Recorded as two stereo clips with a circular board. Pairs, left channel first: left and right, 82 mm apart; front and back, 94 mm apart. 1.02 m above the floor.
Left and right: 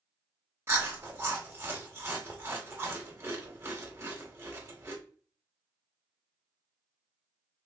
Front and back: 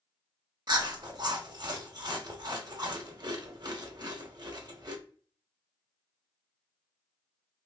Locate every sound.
0.7 s chewing: 145° right, 0.9 m